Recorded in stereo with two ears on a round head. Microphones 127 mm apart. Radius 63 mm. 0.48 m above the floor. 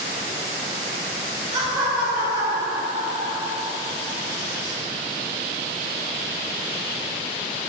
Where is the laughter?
15° right (ahead or behind), 1.7 m.